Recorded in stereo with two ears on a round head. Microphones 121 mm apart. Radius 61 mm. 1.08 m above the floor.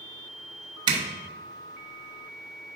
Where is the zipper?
30° right (ahead or behind), 1.0 m.